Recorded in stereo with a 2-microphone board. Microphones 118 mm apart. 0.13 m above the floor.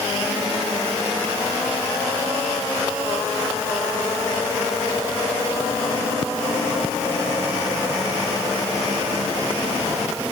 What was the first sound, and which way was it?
Only background noise.